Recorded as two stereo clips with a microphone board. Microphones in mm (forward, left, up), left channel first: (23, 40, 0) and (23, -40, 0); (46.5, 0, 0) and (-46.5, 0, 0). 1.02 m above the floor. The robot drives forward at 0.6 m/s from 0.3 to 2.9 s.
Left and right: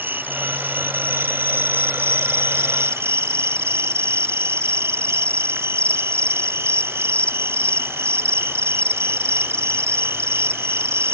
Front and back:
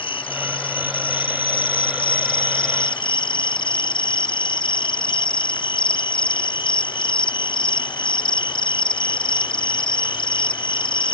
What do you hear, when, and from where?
0.0 s an insect: 25° right; by 11.2 s 30° right